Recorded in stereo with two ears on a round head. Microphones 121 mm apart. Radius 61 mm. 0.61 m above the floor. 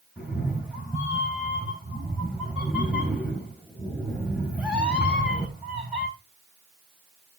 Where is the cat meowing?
10° right (ahead or behind), 3.5 m.